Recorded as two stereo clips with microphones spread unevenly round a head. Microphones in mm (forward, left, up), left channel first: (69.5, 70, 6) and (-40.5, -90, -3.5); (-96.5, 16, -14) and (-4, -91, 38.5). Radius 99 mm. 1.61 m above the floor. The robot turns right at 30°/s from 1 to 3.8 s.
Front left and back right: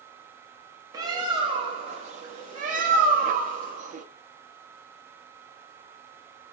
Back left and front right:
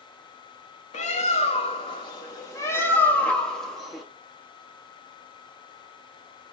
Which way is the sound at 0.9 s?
170° left.